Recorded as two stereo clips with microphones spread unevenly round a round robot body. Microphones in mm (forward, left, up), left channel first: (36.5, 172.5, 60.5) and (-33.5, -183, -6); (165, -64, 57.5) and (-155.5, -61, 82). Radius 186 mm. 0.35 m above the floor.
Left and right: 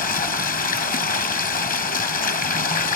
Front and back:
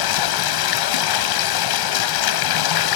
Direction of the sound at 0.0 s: 10° left.